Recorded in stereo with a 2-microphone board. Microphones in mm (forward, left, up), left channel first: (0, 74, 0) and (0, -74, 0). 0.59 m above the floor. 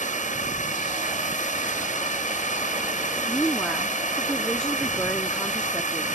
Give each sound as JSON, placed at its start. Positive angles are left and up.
{"t": 0.0, "sound": "a drone", "side_deg": 60}
{"t": 3.3, "sound": "a woman speaking", "side_deg": 5}